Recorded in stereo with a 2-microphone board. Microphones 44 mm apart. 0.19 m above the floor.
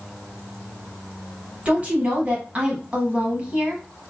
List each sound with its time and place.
1.6 s a woman speaking: 30° right (ahead or behind), 1.1 m